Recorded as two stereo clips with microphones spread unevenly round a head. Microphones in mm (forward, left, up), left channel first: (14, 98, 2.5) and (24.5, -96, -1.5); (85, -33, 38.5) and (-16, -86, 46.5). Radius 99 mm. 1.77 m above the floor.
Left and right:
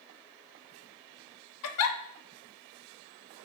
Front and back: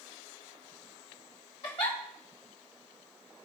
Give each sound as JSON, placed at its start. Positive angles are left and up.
{"t": 1.6, "sound": "a giggle", "azimuth_deg": 95, "distance_m": 0.8}